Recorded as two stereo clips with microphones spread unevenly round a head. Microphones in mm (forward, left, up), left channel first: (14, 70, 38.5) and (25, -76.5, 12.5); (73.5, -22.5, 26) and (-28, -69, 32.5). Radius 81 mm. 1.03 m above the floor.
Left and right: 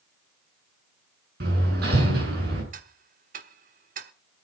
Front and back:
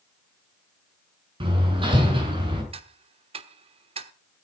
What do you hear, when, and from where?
1.4 s hammering: 115° right, 6.5 m
2.7 s ticking: 130° right, 1.2 m